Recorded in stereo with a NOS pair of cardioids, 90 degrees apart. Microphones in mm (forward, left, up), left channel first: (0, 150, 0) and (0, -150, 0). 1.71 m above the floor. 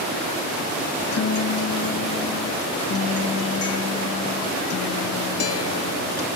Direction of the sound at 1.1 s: 50° left.